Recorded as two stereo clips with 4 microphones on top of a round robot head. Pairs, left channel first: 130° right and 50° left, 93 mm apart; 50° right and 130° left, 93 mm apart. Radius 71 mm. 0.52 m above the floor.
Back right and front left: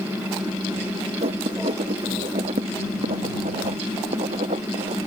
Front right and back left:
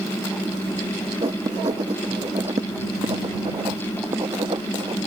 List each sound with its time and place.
1.2 s writing: 75° left